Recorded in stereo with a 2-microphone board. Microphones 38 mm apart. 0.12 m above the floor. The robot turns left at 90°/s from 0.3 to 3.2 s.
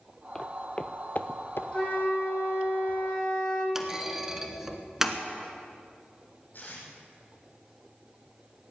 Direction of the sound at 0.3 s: 15° left (ahead or behind).